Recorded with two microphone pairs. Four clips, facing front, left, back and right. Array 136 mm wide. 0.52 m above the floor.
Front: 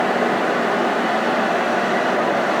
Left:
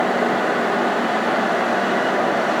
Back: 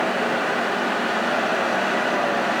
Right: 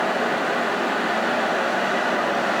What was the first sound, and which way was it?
Only background noise.